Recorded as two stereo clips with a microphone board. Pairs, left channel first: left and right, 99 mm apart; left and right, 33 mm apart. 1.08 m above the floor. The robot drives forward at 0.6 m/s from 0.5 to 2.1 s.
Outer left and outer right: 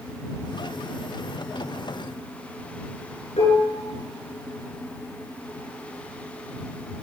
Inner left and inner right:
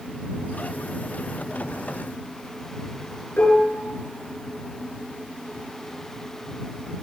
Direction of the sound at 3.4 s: 80° left.